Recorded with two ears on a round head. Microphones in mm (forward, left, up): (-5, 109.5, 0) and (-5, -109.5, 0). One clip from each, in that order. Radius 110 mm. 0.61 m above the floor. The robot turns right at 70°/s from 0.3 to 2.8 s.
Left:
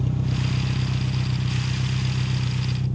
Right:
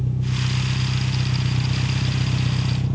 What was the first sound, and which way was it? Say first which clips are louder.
An engine running: right 1 dB; 120° left.